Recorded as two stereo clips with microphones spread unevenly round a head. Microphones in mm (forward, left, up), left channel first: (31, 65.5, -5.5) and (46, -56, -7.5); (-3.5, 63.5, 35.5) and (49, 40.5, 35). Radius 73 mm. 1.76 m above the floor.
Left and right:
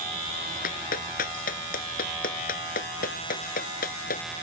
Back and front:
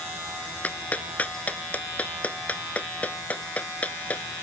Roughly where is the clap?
Left.